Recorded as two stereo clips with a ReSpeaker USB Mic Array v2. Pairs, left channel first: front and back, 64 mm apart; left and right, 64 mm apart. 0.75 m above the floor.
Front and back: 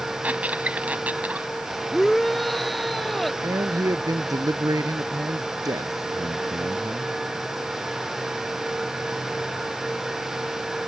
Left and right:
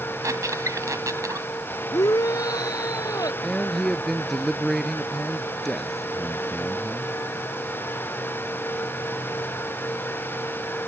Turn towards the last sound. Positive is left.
turn(degrees=175)